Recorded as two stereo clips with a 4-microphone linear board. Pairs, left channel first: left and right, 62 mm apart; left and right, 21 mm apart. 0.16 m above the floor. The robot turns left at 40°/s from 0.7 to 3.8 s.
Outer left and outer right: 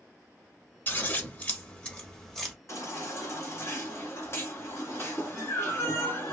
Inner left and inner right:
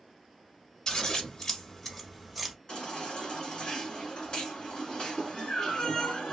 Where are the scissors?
35° left (ahead or behind), 0.9 m; by 2.5 s centre (ahead or behind), 0.9 m.